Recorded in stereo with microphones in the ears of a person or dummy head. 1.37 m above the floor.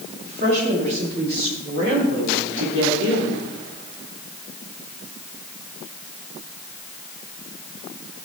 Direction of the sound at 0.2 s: 55° right (ahead or behind).